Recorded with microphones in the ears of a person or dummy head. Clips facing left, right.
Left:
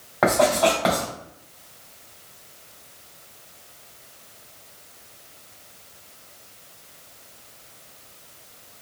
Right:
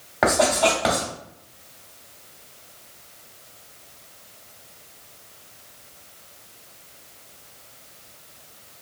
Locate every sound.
0.2 s writing: centre (ahead or behind), 1.5 m